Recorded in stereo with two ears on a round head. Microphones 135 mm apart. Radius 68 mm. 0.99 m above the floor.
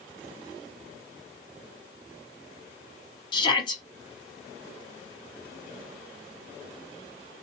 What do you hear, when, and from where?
3.3 s a shout: 30° left (ahead or behind), 1.2 m